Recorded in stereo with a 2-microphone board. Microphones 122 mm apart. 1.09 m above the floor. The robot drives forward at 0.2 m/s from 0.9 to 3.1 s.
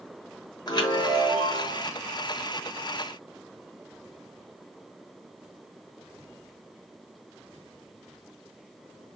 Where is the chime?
35° left (ahead or behind), 1.0 m.